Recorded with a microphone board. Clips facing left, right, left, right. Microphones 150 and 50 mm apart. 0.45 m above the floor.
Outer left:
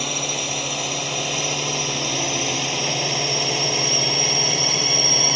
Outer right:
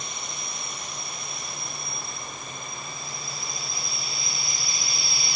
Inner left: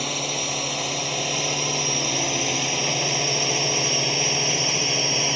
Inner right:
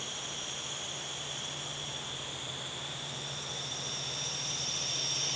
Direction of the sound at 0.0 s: 85° left.